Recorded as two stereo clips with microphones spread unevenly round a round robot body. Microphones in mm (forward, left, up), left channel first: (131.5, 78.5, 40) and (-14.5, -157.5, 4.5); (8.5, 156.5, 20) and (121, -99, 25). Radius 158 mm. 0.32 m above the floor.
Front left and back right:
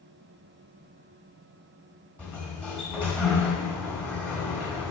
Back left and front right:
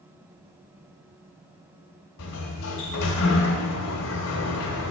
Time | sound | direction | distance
2.2 | a sliding door | 150° left | 1.5 m